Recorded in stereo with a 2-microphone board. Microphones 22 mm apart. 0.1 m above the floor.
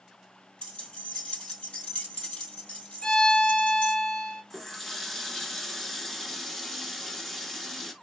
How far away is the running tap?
About 0.8 m.